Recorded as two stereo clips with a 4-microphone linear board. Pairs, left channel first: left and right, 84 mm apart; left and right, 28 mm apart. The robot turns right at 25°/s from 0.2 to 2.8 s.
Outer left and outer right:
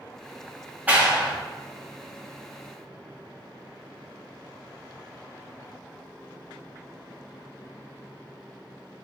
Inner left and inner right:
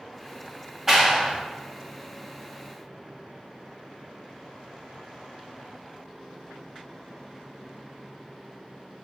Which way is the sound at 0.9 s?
20° right (ahead or behind).